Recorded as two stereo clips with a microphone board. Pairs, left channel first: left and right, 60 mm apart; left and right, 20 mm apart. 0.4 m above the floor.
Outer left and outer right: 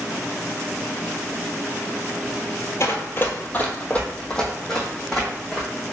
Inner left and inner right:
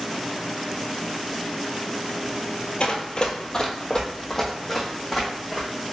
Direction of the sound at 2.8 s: 50° left (ahead or behind).